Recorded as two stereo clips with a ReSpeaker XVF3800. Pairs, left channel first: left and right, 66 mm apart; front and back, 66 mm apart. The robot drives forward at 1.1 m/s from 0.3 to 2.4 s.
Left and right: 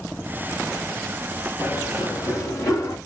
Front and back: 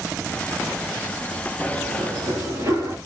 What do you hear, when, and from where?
1.6 s running footsteps: 125° left, 7 m; by 3.0 s 135° left, 7.5 m